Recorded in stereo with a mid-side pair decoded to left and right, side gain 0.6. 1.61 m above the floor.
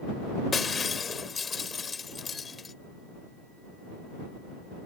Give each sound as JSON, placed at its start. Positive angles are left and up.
{"t": 0.5, "sound": "breaking glass", "azimuth_deg": 30}